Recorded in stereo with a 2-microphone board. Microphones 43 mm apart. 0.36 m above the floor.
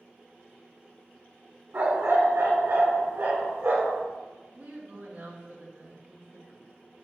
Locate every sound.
1.7 s a dog barking: 70° right (ahead or behind), 1.6 m; by 4.0 s 80° right, 3 m
4.5 s a woman speaking: 70° right (ahead or behind), 2.5 m